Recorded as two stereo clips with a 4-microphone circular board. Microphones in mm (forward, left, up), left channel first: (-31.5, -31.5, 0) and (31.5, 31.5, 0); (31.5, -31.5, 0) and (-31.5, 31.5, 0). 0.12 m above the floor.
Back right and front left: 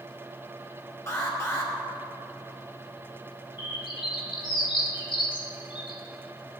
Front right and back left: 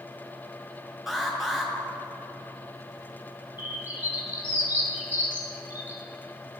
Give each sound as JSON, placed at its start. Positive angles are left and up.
{"t": 1.1, "sound": "an alarm", "azimuth_deg": -140, "distance_m": 2.0}
{"t": 3.6, "sound": "a bird", "azimuth_deg": -160, "distance_m": 2.0}